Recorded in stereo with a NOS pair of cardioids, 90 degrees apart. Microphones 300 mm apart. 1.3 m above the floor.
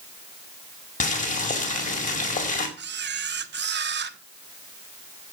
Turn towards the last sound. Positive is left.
turn(degrees=-35)